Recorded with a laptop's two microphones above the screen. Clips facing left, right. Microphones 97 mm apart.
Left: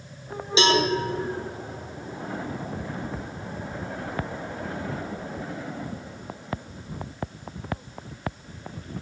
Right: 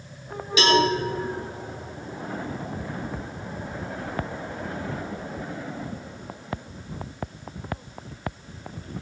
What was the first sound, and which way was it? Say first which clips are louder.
A cowbell: right 1 dB; 25° left (ahead or behind).